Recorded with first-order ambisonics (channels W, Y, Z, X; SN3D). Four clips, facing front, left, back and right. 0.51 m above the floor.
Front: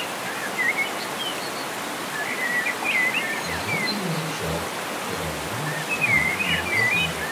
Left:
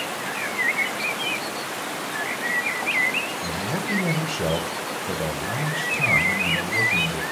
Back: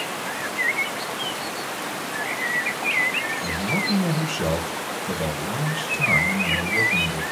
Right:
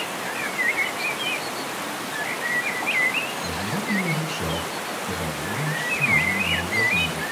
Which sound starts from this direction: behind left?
A man speaking, at 3.4 s.